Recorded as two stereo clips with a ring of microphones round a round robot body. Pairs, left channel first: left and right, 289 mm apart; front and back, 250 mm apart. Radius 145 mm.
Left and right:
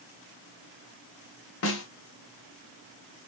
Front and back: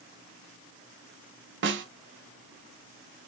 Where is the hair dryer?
I don't hear a hair dryer.